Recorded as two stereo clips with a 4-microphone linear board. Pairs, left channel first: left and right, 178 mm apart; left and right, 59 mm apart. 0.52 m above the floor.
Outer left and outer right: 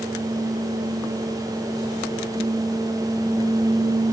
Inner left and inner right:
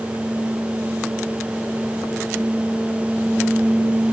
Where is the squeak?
I don't hear a squeak.